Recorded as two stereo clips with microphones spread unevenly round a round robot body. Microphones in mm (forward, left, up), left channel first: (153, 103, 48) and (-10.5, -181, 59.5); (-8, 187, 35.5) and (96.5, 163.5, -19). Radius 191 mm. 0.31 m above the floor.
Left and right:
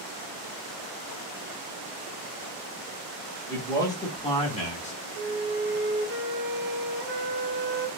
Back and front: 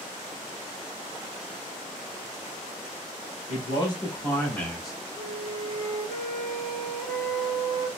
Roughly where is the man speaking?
Behind left.